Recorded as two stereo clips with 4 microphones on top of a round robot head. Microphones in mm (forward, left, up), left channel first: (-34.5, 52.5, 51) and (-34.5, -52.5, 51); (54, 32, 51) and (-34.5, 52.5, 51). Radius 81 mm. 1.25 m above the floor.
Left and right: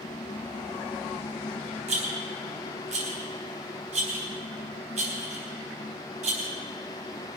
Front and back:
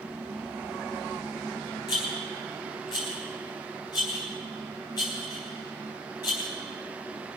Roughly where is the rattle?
Right.